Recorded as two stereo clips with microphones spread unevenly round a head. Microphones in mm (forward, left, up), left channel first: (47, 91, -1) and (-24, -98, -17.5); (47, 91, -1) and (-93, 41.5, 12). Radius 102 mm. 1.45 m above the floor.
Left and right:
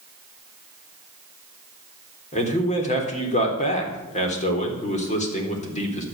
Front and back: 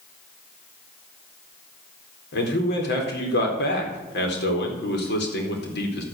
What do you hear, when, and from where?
2.3 s a man speaking: 15° left, 4 m